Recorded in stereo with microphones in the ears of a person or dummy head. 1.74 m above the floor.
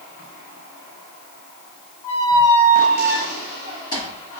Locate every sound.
2.0 s a squeak: 15° left (ahead or behind), 1.6 m